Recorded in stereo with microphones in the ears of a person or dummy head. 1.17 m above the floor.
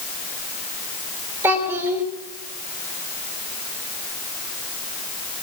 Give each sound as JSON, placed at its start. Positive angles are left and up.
{"t": 1.4, "sound": "a child speaking", "side_deg": -15, "distance_m": 3.0}